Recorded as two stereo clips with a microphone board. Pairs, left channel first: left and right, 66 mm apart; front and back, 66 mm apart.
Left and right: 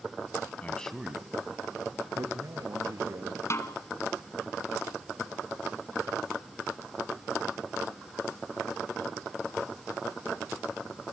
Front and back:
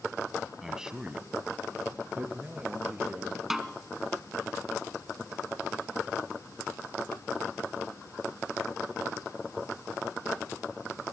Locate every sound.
0.6 s a man speaking: 100° left, 1.1 m; by 3.4 s 110° right, 3.5 m
3.5 s a snare drum: 100° left, 1.3 m